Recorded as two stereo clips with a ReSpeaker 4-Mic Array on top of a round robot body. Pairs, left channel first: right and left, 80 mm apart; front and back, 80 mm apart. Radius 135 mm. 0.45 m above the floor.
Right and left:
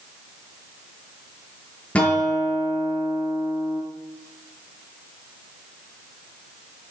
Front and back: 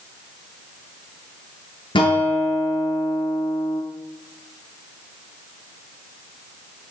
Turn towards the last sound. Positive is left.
turn(degrees=-15)